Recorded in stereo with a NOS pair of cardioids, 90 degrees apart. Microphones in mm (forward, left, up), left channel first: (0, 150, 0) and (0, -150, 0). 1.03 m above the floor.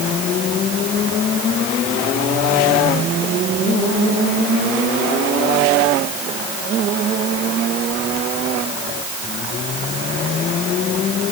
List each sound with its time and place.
Only background noise.